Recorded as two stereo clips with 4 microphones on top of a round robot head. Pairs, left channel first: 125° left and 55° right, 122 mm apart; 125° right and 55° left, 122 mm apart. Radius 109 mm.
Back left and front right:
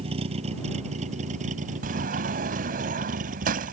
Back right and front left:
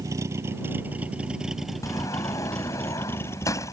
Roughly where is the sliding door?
Ahead right.